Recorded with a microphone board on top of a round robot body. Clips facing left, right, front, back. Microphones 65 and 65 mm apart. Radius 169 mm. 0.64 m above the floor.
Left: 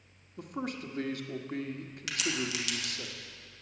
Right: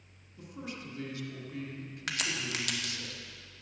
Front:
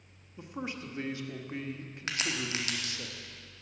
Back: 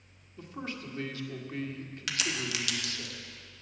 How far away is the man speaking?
About 1.5 m.